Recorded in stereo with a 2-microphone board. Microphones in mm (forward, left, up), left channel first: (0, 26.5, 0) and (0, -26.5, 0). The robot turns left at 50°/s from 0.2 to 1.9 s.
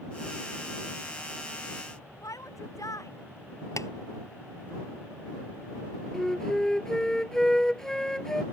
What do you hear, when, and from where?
2.2 s a shout: 85° left
3.8 s tapping: 70° left (ahead or behind)
6.1 s a flute: 10° left (ahead or behind)